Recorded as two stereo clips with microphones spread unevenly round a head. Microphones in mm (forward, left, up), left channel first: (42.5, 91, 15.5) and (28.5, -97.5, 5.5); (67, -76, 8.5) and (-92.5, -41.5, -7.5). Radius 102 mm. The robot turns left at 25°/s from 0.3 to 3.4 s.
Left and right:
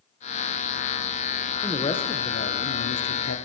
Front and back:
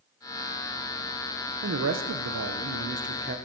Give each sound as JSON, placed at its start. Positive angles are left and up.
{"t": 1.6, "sound": "a man speaking", "azimuth_deg": 165, "distance_m": 0.6}